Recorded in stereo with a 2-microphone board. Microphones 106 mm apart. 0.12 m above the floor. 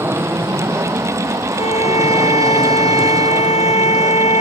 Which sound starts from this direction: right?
An aircraft, at 0.0 s.